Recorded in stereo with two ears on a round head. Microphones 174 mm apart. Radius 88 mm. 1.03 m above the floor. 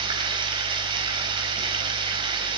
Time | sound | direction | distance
0.0 | running water | 25° right (ahead or behind) | 4.5 m